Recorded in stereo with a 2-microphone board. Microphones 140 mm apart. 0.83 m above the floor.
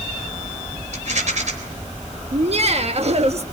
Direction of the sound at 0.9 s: 65° right (ahead or behind).